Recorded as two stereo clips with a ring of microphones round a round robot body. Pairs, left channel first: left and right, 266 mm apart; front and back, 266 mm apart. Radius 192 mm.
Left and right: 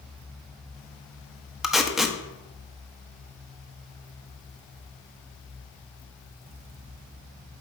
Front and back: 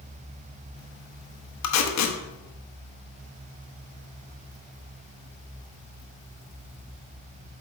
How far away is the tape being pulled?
About 0.9 m.